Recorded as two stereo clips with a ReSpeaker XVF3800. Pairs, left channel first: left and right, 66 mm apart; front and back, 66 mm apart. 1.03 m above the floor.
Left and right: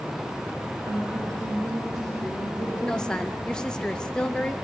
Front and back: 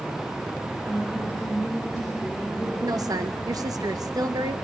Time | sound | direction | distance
0.9 | a woman speaking | 100° right | 6 m
2.8 | a woman speaking | 165° left | 0.8 m